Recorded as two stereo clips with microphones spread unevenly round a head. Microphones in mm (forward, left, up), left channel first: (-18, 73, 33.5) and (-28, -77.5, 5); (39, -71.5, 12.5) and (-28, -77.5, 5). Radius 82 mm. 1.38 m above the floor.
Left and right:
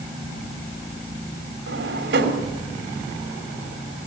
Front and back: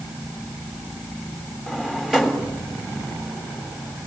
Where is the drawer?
90° right, 3 m.